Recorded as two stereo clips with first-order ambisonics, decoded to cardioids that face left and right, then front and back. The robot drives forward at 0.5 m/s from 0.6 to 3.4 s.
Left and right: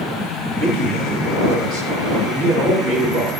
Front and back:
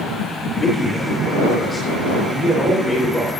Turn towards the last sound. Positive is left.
turn(degrees=-100)